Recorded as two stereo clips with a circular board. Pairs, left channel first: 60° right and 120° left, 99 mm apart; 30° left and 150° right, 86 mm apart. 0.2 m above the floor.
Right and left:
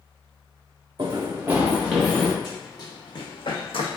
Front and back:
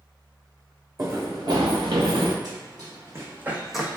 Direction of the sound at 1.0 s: 155° left.